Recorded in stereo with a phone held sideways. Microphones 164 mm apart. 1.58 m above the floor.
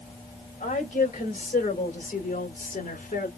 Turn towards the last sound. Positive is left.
turn(degrees=60)  # may be behind; listen again after turning